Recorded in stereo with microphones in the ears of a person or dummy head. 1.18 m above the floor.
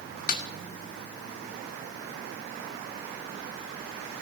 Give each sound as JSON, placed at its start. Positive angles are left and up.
{"t": 0.3, "sound": "a snare drum", "side_deg": 50, "distance_m": 0.8}